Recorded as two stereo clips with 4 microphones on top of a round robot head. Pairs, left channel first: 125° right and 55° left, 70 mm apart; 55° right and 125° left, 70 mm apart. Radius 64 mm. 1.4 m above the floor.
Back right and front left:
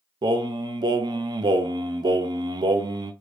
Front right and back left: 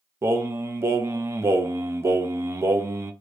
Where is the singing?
70° left, 0.6 m.